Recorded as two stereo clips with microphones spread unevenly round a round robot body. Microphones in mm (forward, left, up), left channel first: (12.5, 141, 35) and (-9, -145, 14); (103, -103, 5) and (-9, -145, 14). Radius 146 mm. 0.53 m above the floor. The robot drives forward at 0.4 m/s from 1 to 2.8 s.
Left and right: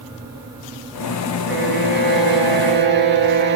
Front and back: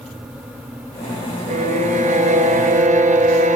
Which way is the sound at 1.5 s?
150° right.